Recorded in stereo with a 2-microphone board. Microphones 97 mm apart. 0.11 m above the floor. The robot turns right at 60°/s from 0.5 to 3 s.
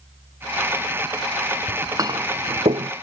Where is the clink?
15° right (ahead or behind); by 2.9 s 80° right.